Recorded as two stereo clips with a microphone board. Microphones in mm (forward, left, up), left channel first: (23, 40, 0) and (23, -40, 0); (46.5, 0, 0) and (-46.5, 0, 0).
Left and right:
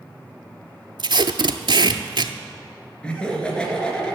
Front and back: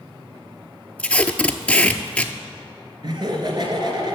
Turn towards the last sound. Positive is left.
turn(degrees=165)